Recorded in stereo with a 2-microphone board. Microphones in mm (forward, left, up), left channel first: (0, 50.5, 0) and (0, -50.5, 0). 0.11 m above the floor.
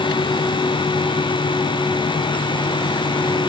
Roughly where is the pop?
No pop in this recording.